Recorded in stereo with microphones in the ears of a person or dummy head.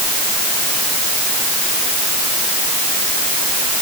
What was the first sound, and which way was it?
Only background noise.